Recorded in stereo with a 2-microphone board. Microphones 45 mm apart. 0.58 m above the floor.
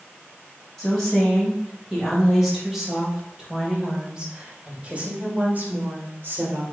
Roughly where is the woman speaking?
Centre.